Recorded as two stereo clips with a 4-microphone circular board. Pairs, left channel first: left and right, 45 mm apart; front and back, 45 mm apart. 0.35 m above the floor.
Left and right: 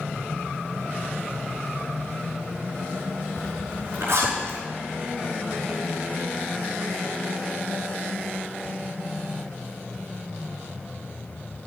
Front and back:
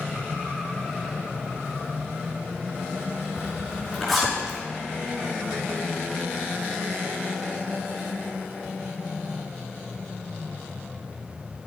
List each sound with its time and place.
3.4 s a zipper: 85° right, 5 m